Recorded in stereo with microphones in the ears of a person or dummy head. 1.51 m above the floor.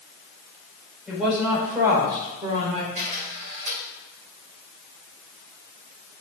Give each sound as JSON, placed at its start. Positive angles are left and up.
{"t": 1.1, "sound": "a woman speaking", "side_deg": 0, "distance_m": 5.0}
{"t": 3.0, "sound": "a camera shutter", "side_deg": -35, "distance_m": 2.5}